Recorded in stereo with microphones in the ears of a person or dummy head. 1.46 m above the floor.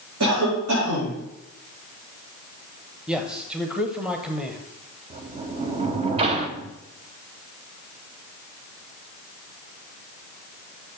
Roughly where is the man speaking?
Centre.